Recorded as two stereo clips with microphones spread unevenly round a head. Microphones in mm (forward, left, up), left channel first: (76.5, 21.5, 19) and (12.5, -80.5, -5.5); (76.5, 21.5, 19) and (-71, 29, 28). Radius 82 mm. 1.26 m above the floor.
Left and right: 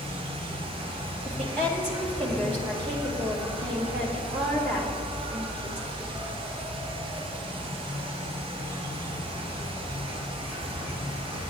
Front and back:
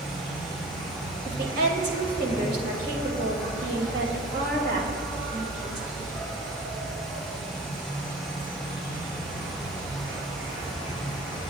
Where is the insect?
105° right, 3 m.